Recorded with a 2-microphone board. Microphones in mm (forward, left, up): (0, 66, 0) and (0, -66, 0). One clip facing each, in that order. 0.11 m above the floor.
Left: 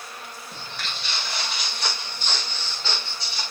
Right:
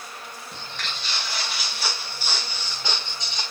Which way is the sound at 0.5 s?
5° left (ahead or behind).